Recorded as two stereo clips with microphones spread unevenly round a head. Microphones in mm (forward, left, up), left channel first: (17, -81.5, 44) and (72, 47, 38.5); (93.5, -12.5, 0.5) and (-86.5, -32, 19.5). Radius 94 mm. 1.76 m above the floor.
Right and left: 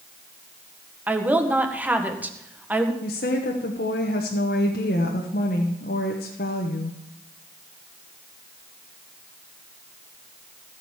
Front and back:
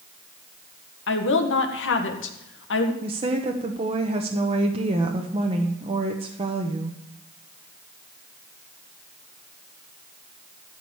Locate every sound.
1.1 s a woman speaking: 15° right, 1.8 m
3.0 s a woman speaking: 125° right, 1.1 m